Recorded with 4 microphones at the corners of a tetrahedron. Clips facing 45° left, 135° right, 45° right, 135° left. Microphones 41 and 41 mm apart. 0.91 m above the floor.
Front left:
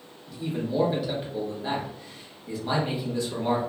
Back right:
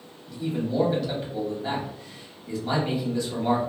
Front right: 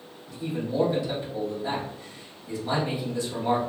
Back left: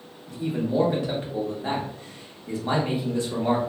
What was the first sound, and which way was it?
A man speaking, 130° left.